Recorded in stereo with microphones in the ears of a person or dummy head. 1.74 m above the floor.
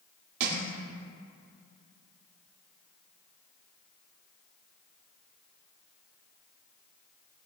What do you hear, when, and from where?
0.4 s crushing: 60° right (ahead or behind), 2 m